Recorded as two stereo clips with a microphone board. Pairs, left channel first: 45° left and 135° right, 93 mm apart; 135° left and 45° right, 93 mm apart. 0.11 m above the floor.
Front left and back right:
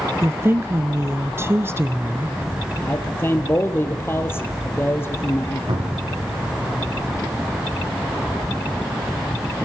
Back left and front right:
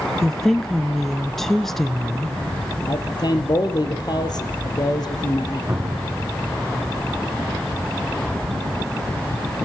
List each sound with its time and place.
0.2 s a woman speaking: 140° right, 1.2 m
2.8 s a man speaking: 105° left, 2.5 m
5.7 s a cupboard door: 115° right, 7 m